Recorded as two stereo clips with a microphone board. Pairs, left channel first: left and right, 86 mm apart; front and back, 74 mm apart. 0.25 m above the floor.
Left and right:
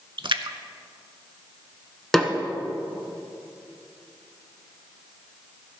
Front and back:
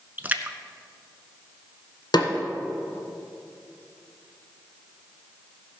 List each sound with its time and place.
0.2 s a splash: 115° right, 0.5 m
2.1 s a snare drum: 5° left, 1.0 m